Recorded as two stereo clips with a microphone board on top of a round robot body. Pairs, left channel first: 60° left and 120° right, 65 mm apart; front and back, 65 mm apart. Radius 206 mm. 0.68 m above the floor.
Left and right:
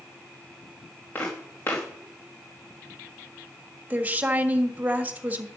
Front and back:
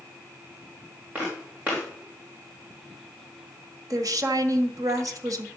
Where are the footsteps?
115° left, 3.5 m.